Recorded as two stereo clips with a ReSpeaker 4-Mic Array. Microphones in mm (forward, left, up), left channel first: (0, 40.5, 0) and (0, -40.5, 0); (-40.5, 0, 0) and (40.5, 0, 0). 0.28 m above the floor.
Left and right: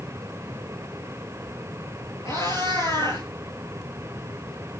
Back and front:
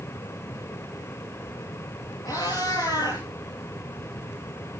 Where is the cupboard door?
No cupboard door in this recording.